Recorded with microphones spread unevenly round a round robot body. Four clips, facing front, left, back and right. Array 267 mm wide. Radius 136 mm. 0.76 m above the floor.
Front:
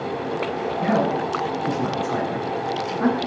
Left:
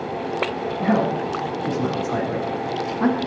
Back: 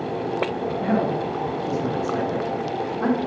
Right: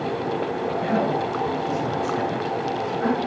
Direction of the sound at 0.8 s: 55° left.